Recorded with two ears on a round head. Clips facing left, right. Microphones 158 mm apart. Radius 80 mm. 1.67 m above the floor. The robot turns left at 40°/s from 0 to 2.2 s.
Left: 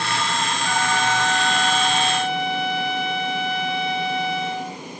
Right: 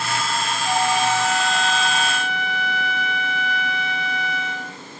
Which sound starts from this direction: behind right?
A flute, at 0.7 s.